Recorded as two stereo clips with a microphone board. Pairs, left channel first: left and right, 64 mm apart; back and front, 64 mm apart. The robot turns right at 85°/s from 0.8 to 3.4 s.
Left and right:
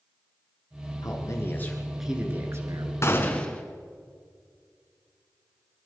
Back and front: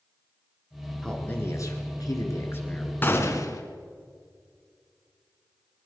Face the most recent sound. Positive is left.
turn(degrees=155)